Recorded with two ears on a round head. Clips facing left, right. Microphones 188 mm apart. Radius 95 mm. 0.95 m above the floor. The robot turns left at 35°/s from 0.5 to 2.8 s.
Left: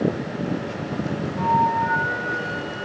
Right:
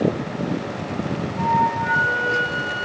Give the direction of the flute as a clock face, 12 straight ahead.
12 o'clock.